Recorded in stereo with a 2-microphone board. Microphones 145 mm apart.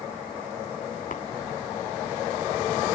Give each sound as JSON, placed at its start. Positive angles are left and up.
{"t": 1.1, "sound": "tapping", "side_deg": 70, "distance_m": 1.8}